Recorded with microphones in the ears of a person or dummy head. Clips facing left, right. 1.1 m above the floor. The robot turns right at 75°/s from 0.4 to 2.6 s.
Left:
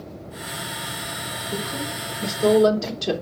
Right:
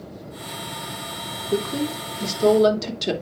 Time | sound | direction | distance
1.4 | a woman speaking | 115° right | 2.5 m